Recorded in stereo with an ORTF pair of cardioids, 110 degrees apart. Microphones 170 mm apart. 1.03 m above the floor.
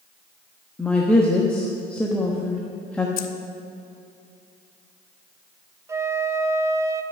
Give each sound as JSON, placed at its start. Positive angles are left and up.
{"t": 0.8, "sound": "a woman speaking", "azimuth_deg": 5, "distance_m": 1.1}
{"t": 3.2, "sound": "keys jangling", "azimuth_deg": 65, "distance_m": 0.8}
{"t": 5.9, "sound": "a flute", "azimuth_deg": -15, "distance_m": 0.6}